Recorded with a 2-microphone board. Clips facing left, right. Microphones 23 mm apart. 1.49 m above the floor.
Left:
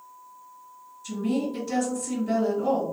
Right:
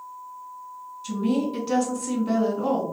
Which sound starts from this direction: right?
A woman speaking, at 1.0 s.